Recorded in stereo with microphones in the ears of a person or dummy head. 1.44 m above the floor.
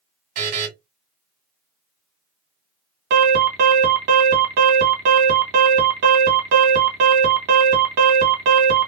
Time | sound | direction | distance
0.3 | a buzzer | 55° right (ahead or behind) | 1.8 m
3.1 | an alarm | 60° right (ahead or behind) | 1.6 m